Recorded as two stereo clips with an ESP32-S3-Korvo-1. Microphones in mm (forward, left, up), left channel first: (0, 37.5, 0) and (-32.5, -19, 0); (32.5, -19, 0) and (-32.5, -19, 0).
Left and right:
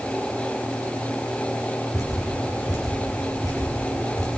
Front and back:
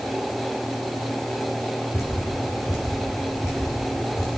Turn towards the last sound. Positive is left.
turn(degrees=35)